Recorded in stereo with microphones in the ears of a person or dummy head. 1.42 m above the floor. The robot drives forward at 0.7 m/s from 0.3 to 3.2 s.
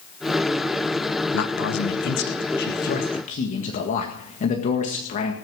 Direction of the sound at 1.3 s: 85° left.